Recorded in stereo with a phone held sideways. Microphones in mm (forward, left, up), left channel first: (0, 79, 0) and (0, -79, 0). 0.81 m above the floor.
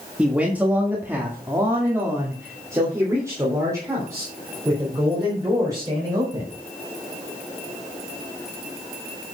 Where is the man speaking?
5° right (ahead or behind), 1.5 m; by 6.5 s 20° right (ahead or behind), 4.5 m.